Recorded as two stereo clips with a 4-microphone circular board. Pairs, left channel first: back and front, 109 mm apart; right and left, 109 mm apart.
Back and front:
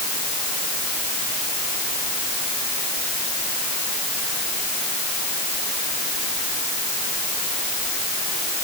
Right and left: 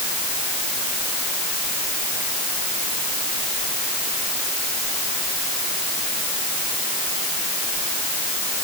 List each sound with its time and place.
Only background noise.